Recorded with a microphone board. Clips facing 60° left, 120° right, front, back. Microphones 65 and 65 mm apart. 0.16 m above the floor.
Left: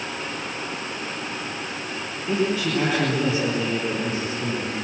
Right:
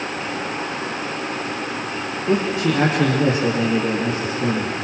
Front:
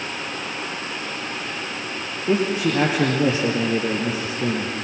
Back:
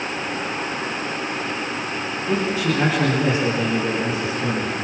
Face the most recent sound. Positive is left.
turn(degrees=-60)